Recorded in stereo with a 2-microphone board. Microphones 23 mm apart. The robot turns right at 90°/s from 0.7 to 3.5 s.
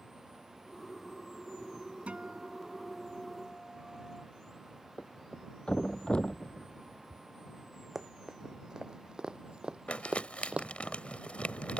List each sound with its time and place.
2.1 s a guitar: 95° right; by 4.2 s 35° left
5.0 s a thud: 45° left (ahead or behind)
8.0 s running footsteps: 25° right (ahead or behind); by 10.7 s 60° right (ahead or behind)
9.9 s crumpling: 80° left